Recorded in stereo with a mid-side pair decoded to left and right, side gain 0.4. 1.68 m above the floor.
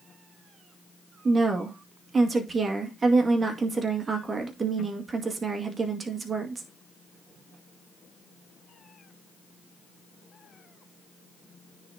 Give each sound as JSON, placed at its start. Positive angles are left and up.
{"t": 1.2, "sound": "a woman speaking", "azimuth_deg": -40, "distance_m": 2.0}